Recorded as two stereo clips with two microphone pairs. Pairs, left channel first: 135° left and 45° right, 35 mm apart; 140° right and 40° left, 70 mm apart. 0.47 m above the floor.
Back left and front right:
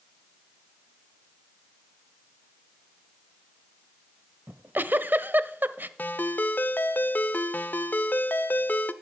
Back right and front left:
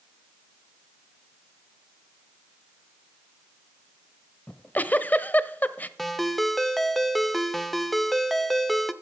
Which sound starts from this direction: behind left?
A ringtone, at 6.0 s.